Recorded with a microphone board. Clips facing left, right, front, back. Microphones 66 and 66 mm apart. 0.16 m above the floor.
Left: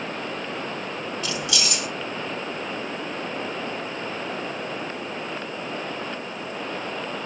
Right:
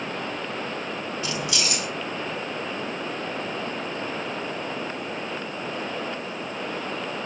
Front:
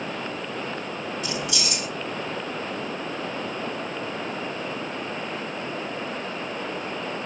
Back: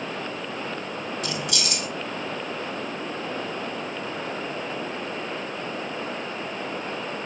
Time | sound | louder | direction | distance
1.2 | keys jangling | even, even | 155° right | 2 m